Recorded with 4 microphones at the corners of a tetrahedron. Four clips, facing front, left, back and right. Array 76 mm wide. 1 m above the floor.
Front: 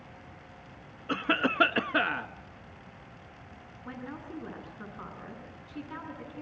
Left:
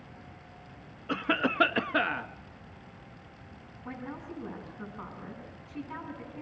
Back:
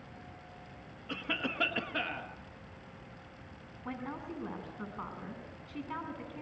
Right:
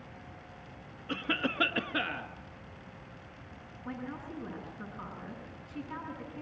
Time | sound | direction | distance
1.1 | a cough | 40° left | 1.4 m
3.9 | a woman speaking | 155° left | 8 m